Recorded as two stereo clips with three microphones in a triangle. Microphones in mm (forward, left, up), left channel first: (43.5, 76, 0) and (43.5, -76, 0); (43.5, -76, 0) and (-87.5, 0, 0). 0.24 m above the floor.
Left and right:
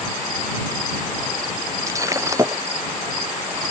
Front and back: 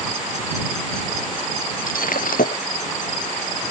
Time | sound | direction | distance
1.9 | breaking glass | 25° right | ?